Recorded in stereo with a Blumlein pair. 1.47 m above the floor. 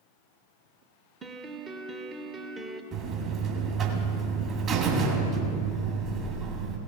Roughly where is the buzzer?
Ahead right.